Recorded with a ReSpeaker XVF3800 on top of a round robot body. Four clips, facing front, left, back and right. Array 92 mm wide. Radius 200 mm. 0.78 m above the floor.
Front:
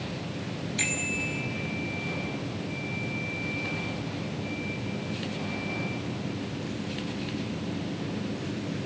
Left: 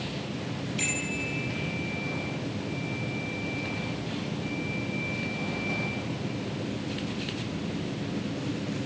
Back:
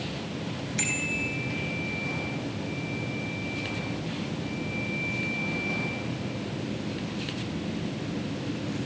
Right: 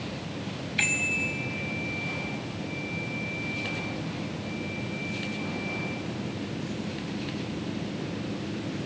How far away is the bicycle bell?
About 4.5 m.